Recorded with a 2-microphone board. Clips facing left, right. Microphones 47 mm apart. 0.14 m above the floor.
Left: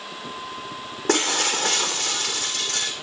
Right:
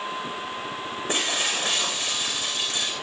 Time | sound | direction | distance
1.1 | breaking glass | 80° left | 4 m